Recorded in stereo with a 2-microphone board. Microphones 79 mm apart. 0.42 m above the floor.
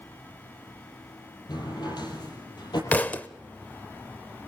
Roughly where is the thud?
Left.